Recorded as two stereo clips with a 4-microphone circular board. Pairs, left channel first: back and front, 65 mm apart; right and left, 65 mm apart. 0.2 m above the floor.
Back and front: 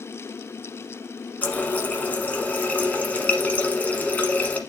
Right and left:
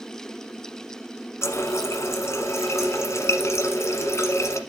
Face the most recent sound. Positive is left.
turn(degrees=-120)